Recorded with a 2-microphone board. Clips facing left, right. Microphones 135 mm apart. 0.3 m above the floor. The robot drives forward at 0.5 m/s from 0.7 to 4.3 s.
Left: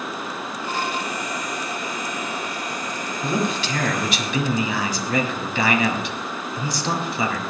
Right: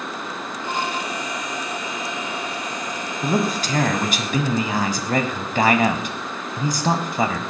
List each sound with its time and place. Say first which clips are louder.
3.2 s a man speaking: right 2 dB; 40° right (ahead or behind), 2 m; by 7.4 s 50° right (ahead or behind), 1.8 m